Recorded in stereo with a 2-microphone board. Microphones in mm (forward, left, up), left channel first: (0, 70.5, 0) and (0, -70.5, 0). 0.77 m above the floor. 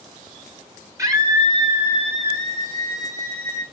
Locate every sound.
1.0 s a scream: 20° right (ahead or behind), 2 m; by 3.6 s 65° right (ahead or behind), 4.5 m